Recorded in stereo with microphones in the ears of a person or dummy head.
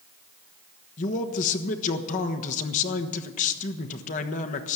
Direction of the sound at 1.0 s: 40° left (ahead or behind).